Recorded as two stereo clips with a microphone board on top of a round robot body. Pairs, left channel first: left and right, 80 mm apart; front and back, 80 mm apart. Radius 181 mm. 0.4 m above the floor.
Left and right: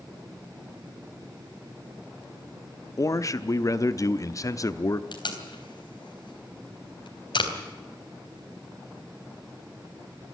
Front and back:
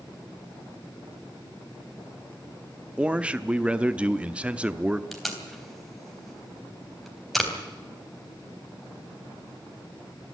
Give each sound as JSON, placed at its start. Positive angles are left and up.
{"t": 3.0, "sound": "a man speaking", "azimuth_deg": 110, "distance_m": 1.1}
{"t": 5.1, "sound": "tape being pulled", "azimuth_deg": 90, "distance_m": 3.5}